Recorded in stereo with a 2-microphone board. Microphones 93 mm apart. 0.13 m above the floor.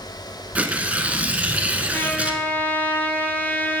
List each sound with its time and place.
0.6 s tearing paper: 15° right (ahead or behind), 0.7 m
1.9 s a trumpet: 20° left (ahead or behind), 1.0 m